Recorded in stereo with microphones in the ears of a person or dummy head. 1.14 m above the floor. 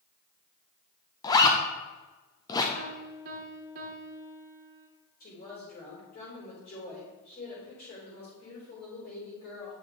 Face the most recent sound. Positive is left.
turn(degrees=50)  # may be behind; listen again after turning